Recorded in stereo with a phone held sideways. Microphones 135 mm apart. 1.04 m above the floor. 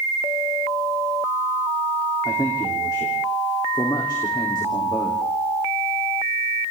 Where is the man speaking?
35° left (ahead or behind), 3 m.